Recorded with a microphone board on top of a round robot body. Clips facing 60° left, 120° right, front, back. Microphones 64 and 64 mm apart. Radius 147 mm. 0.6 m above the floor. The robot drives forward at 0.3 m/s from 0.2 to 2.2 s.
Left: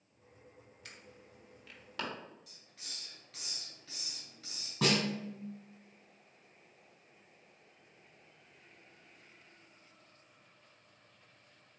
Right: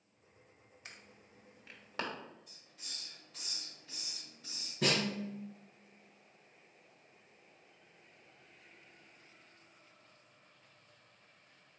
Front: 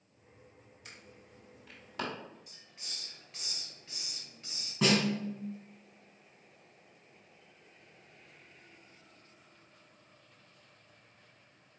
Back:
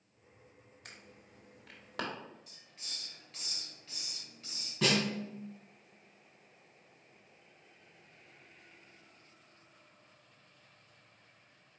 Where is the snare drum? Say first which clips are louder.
Left 2 dB, front 3 dB; 80° left, 2 m.